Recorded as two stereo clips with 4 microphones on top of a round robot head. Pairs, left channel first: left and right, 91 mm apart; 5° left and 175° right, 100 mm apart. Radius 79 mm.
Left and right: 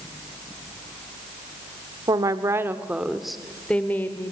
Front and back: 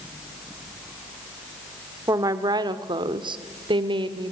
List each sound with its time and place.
2.1 s a woman speaking: 125° right, 1.5 m; by 4.3 s 155° left, 2 m